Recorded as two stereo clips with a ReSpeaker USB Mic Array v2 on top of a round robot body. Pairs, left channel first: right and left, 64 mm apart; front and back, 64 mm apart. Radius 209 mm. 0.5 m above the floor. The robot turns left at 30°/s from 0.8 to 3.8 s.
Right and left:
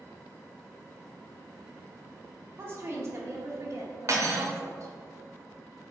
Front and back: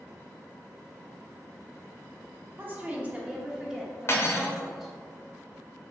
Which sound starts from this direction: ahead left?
Cutlery clinking, at 4.1 s.